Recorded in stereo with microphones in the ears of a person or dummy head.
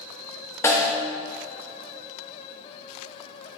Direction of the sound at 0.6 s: 15° left (ahead or behind).